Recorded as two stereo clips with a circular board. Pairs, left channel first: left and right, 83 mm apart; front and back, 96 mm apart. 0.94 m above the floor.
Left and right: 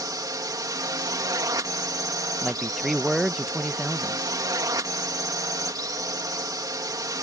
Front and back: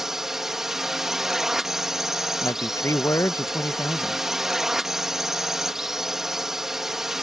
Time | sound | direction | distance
0.0 | a drone | 95° right | ?
2.4 | a man speaking | 5° right | ?